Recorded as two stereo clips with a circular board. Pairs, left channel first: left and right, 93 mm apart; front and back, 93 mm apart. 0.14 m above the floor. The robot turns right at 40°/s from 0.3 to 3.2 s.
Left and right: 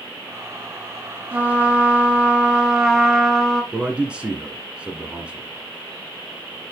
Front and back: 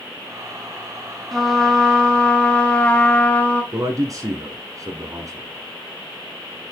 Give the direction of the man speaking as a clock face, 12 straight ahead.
5 o'clock.